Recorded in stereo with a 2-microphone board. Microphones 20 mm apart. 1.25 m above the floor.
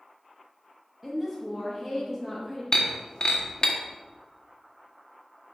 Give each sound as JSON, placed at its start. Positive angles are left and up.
{"t": 1.0, "sound": "a woman speaking", "side_deg": -10, "distance_m": 2.0}
{"t": 2.7, "sound": "breaking glass", "side_deg": 45, "distance_m": 1.3}